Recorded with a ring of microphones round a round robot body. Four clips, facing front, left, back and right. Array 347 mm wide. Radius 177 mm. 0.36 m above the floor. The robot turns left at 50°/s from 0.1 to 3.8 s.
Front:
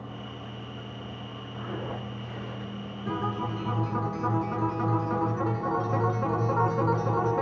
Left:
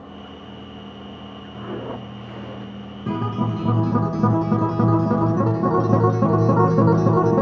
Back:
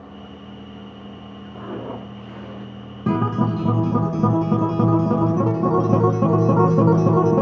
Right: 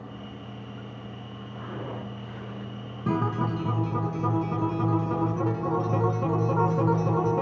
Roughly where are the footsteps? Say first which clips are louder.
Left 6 dB, back 5 dB; behind left.